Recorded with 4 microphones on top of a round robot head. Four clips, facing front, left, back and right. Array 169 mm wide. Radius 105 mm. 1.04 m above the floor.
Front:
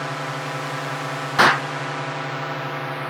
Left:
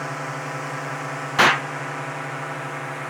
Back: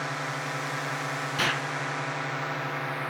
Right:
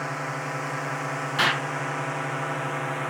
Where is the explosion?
35° left.